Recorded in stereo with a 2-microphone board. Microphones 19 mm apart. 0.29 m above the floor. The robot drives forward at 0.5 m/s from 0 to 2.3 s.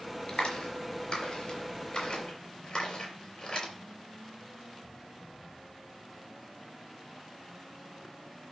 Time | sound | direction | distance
0.3 | a clap | 60° left (ahead or behind) | 4 m